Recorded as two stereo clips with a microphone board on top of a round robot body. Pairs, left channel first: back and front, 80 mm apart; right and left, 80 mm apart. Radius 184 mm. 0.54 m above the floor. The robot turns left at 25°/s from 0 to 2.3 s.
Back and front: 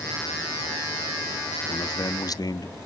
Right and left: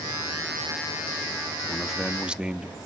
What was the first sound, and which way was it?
A man speaking, straight behind.